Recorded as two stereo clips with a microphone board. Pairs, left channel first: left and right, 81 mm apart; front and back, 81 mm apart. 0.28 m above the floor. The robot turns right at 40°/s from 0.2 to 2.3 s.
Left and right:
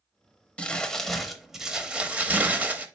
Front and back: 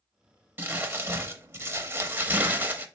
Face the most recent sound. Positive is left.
turn(degrees=-140)